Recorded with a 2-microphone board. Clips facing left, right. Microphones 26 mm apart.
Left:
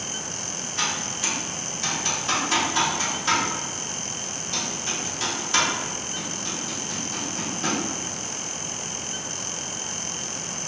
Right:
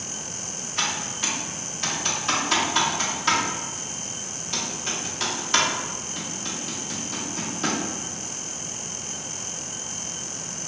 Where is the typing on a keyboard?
25° right (ahead or behind), 0.7 m.